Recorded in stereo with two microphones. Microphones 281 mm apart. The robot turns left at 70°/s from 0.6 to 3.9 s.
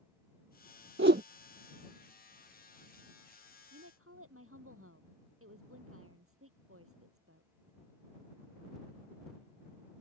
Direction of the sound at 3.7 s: 60° right (ahead or behind).